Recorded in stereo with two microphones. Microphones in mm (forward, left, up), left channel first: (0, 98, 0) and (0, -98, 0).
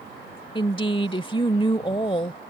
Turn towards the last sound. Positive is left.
turn(degrees=25)  # may be behind; listen again after turning